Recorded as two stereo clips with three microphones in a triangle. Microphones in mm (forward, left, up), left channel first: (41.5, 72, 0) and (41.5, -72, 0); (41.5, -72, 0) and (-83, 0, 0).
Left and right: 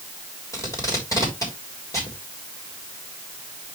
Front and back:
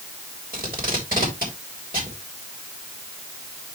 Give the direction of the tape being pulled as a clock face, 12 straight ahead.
7 o'clock.